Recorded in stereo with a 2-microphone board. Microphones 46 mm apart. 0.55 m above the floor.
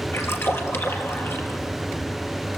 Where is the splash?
70° left (ahead or behind), 3.5 m.